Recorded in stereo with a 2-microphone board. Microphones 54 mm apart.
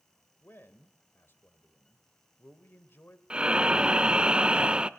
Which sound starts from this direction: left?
A man speaking, at 0.4 s.